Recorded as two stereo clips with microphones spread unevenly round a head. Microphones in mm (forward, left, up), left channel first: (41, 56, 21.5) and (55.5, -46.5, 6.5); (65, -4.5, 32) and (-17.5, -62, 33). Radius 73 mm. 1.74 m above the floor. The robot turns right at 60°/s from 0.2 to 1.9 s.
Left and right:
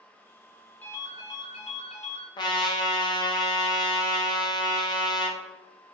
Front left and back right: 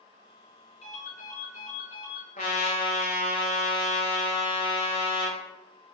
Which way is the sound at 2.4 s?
70° left.